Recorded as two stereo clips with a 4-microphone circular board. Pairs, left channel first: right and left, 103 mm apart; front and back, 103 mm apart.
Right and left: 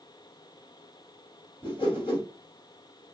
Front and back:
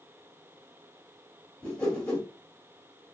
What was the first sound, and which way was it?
A whoosh, 80° right.